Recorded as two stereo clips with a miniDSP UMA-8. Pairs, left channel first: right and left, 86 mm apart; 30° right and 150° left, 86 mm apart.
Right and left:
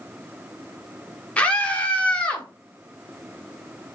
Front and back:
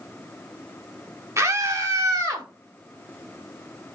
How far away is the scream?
About 1.1 m.